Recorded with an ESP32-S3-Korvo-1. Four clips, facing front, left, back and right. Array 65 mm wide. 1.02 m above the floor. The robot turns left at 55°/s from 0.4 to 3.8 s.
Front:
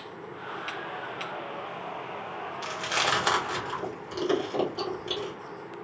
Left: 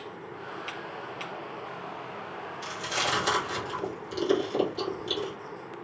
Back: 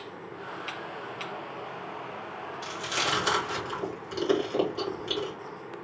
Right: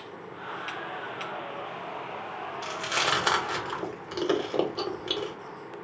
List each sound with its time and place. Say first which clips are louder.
2.6 s chewing: right 2 dB, front 3 dB; 25° right, 1.3 m; by 5.3 s 90° right, 1.3 m